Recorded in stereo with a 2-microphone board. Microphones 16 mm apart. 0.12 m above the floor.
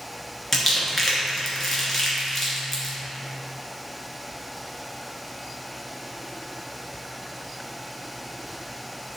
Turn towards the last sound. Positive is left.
turn(degrees=5)  # may be behind; listen again after turning